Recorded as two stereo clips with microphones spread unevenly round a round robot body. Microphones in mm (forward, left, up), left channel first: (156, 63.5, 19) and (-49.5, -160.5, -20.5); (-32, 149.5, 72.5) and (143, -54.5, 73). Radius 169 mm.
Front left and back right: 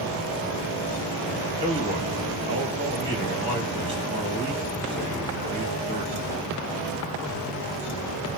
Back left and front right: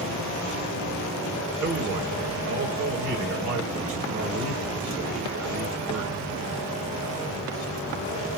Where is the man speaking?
65° right, 1.7 m.